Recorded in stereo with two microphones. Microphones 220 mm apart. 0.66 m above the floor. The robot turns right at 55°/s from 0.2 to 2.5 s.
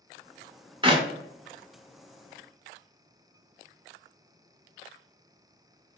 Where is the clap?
20° right (ahead or behind), 0.7 m; by 1.1 s 30° right (ahead or behind), 0.7 m.